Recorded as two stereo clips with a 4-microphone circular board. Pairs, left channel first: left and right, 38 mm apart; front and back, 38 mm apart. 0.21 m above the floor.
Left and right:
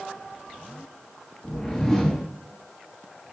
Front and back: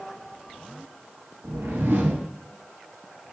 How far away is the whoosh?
About 0.7 m.